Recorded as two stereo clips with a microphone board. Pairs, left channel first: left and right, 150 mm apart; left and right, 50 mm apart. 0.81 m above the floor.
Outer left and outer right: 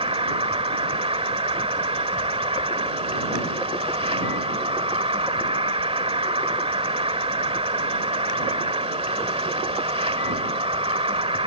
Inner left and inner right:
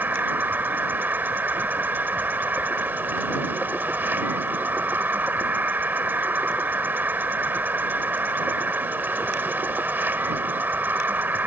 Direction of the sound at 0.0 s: 40° right (ahead or behind).